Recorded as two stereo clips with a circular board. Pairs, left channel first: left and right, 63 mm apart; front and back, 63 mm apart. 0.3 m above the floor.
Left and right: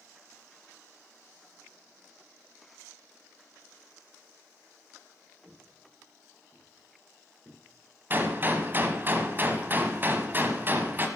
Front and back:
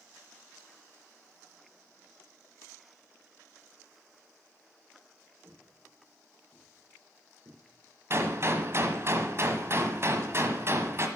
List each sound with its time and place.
5.4 s footsteps: 155° right, 7 m; by 9.1 s 165° right, 5 m
8.1 s a gunshot: 140° right, 1.3 m